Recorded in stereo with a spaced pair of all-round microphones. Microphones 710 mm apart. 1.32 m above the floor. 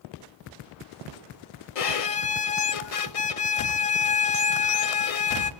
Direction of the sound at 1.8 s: 55° left (ahead or behind).